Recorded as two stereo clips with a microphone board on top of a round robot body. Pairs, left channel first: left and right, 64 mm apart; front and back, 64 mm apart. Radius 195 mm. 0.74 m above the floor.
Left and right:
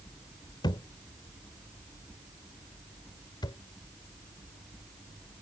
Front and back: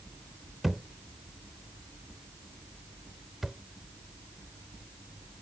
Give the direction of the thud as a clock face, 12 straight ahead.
9 o'clock.